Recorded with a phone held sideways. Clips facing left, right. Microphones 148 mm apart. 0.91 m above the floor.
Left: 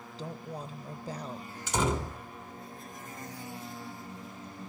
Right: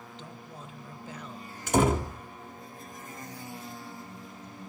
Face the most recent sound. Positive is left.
turn(degrees=-55)  # may be behind; listen again after turning